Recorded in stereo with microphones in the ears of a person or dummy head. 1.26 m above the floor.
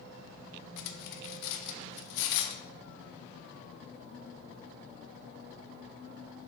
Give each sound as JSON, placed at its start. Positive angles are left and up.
{"t": 0.8, "sound": "cutlery clinking", "side_deg": 65, "distance_m": 0.8}